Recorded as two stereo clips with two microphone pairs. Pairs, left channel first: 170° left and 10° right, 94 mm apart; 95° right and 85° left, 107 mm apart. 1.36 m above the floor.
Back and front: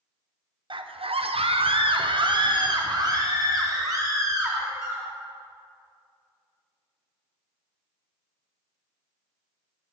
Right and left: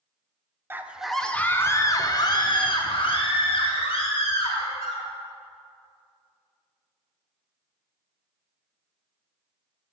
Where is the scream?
15° left, 0.6 m; by 5.1 s 70° right, 2.5 m.